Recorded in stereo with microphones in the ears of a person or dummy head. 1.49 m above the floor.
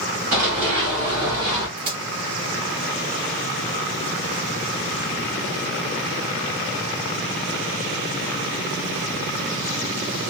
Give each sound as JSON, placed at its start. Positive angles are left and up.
{"t": 0.3, "sound": "running footsteps", "side_deg": -35, "distance_m": 1.8}
{"t": 1.8, "sound": "a crack", "side_deg": -25, "distance_m": 1.1}